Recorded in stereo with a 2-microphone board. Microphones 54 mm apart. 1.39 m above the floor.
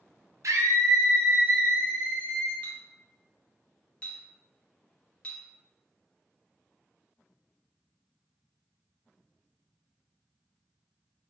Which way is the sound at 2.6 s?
25° left (ahead or behind).